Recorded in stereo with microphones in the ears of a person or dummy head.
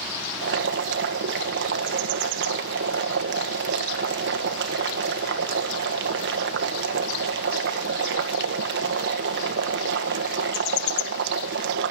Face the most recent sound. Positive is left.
turn(degrees=-60)  # may be behind; listen again after turning